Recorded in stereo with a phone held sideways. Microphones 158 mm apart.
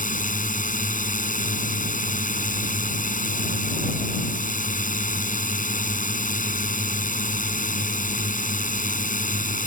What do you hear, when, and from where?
0.0 s a drone: 55° left (ahead or behind)